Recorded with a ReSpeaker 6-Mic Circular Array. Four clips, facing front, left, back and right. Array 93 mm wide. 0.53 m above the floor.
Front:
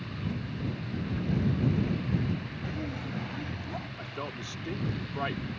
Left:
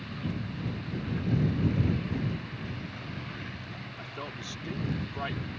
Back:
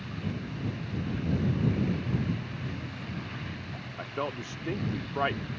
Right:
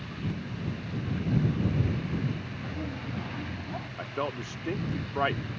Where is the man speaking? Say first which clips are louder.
Right 9 dB, back 4 dB; 120° right.